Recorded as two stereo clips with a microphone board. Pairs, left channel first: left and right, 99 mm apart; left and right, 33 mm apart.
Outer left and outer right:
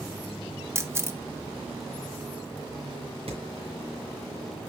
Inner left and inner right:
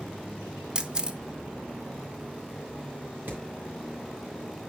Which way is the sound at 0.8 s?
25° right (ahead or behind).